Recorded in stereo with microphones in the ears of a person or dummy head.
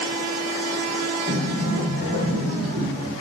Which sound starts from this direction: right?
A sliding door, at 1.3 s.